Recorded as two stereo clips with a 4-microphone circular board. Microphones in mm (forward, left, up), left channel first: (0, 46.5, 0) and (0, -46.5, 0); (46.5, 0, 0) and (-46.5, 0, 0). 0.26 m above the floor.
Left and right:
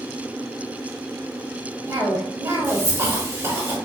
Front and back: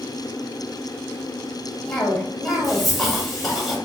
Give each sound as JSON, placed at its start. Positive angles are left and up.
{"t": 1.9, "sound": "a cough", "azimuth_deg": -90, "distance_m": 1.0}